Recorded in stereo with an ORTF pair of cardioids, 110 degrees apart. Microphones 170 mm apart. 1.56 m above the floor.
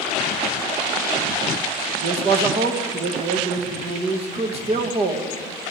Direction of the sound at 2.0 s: 35° right.